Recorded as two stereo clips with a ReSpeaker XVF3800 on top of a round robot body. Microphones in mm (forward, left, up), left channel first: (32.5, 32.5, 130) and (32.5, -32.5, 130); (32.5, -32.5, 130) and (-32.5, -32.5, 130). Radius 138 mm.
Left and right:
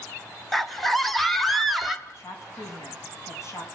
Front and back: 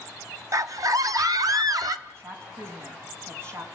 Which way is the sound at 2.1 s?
135° left.